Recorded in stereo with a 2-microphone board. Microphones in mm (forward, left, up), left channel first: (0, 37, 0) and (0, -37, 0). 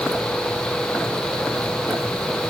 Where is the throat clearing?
I don't hear throat clearing.